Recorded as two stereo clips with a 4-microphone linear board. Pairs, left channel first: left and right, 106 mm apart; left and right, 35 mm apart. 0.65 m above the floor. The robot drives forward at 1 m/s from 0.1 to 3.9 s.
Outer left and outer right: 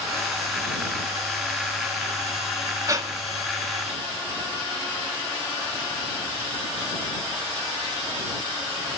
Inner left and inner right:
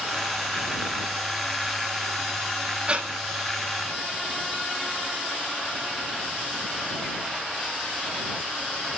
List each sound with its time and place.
2.9 s breathing: 30° right (ahead or behind), 1.2 m